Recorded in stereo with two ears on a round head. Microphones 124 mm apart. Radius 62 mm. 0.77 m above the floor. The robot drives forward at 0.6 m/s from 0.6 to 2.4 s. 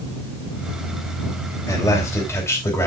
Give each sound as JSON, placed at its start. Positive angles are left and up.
{"t": 1.7, "sound": "a man speaking", "side_deg": 25, "distance_m": 3.0}